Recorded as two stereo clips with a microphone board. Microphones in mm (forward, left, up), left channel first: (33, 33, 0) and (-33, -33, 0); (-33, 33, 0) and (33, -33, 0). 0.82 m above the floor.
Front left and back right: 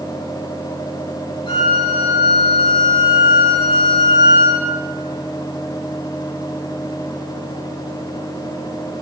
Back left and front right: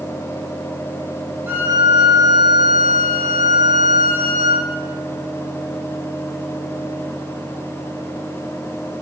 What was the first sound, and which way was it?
A violin, 20° left.